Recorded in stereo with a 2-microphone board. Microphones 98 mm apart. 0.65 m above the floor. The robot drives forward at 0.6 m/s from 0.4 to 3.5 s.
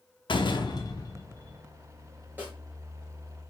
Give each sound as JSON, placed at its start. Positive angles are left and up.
{"t": 0.3, "sound": "a door slam", "side_deg": 55, "distance_m": 0.7}
{"t": 2.4, "sound": "a snare drum", "side_deg": -15, "distance_m": 2.5}